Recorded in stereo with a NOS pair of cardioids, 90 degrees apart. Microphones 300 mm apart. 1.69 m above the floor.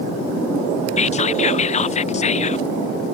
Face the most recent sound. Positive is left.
turn(degrees=25)